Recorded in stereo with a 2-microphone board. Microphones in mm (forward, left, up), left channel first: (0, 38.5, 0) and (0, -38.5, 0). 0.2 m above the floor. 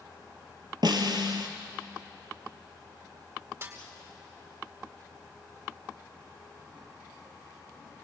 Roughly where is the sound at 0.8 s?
Right.